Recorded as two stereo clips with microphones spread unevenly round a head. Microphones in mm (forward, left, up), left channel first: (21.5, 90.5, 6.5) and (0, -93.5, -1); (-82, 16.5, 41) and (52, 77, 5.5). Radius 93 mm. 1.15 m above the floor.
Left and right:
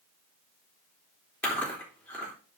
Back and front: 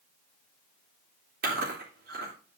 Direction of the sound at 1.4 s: 5° left.